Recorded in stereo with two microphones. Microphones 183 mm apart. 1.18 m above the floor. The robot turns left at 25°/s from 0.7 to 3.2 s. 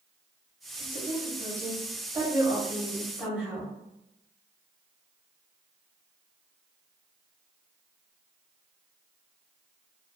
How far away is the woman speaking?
About 1.0 m.